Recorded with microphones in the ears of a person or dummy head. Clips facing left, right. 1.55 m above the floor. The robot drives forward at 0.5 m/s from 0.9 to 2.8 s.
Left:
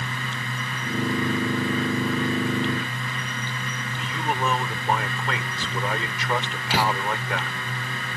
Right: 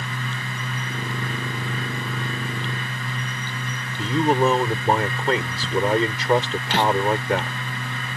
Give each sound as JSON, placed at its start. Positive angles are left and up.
{"t": 4.0, "sound": "a man speaking", "side_deg": -30}
{"t": 6.7, "sound": "a door slam", "side_deg": 5}